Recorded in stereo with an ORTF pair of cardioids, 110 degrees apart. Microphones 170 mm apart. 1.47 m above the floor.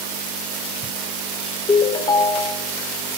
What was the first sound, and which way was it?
A ringtone, 25° left.